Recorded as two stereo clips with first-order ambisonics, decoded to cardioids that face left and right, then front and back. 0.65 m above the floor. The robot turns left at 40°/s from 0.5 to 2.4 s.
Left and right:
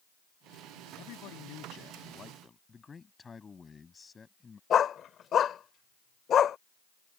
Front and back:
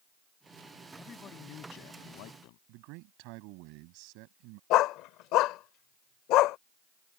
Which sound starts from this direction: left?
A man speaking, at 1.0 s.